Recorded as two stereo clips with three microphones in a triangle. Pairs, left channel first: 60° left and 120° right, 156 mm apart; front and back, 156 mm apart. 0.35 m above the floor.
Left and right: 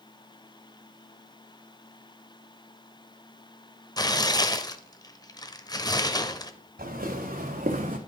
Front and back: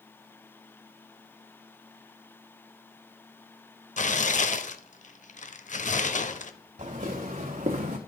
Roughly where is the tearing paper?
Ahead.